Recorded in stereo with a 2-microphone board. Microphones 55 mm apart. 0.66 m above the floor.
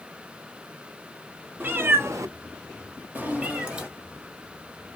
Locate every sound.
1.6 s a cat meowing: 35° right (ahead or behind), 0.9 m; by 3.9 s 15° right (ahead or behind), 1.4 m